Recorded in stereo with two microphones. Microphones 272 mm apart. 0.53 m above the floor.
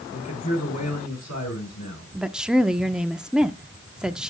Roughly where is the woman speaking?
Centre.